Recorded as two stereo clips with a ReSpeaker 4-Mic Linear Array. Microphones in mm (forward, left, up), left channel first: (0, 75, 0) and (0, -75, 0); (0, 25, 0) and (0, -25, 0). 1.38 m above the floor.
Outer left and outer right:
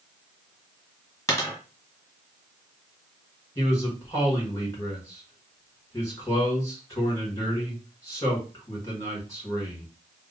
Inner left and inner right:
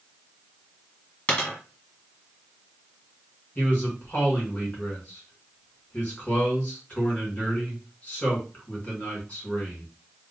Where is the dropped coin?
20° left (ahead or behind), 1.6 m.